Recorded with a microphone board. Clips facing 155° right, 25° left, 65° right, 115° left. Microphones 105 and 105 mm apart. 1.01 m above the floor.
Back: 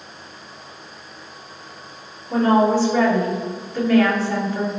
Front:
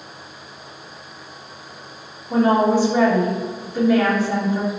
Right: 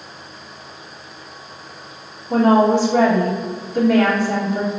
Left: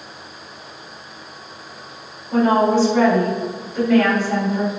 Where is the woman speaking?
50° right, 3 m.